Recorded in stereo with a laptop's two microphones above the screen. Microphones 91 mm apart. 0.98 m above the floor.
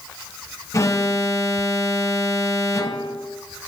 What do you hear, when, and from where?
0.7 s an alarm: 35° left (ahead or behind), 1.7 m